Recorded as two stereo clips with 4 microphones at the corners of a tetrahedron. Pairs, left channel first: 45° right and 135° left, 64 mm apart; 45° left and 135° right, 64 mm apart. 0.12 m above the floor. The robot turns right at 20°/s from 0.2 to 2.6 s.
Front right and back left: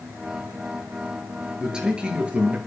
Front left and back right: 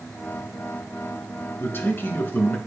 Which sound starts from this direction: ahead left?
A man speaking, at 1.6 s.